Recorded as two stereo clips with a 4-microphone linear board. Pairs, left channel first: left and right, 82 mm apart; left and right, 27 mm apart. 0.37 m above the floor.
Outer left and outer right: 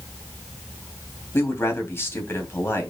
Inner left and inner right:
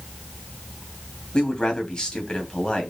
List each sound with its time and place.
1.3 s a man speaking: 30° left (ahead or behind), 2.5 m